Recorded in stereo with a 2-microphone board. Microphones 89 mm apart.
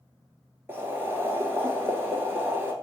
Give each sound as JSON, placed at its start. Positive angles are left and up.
{"t": 0.7, "sound": "boiling", "side_deg": -25, "distance_m": 1.4}